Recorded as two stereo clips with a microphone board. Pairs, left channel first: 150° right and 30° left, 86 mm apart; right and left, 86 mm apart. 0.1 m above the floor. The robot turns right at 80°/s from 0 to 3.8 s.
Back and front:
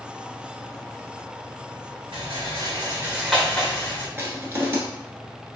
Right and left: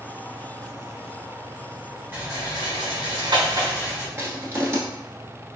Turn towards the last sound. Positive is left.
turn(degrees=65)